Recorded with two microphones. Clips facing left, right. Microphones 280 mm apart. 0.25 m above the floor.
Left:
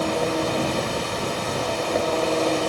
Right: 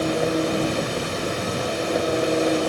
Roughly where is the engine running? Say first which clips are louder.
Right 2 dB; centre.